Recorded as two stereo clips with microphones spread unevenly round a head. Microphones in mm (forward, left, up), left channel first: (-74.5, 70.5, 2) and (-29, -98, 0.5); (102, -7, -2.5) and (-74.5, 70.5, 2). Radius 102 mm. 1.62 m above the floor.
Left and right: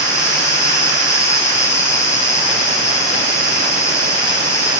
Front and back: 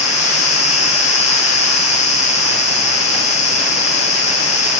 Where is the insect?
30° left, 3 m.